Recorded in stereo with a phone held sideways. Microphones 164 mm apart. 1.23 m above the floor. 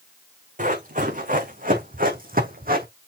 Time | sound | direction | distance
0.6 | running footsteps | 50° right (ahead or behind) | 4 m